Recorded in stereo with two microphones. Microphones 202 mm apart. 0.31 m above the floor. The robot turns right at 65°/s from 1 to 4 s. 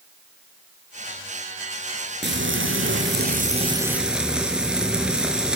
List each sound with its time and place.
2.2 s frying: 120° right, 5.5 m; by 5.6 s 5° right, 5.5 m